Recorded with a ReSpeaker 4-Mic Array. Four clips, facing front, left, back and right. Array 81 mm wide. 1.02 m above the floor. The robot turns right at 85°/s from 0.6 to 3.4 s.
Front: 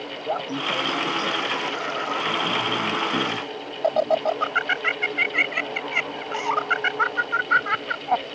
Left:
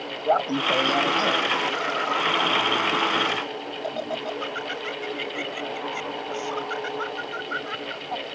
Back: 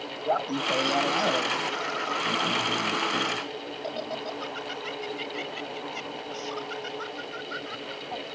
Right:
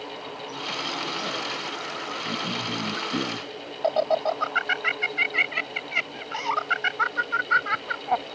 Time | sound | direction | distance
0.2 | laughter | 95° left | ?